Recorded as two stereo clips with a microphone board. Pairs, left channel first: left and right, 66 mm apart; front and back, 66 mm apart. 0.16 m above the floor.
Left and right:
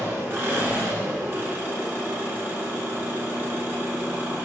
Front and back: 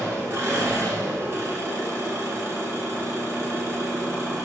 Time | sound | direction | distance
0.0 | an engine running | 140° right | 1.3 m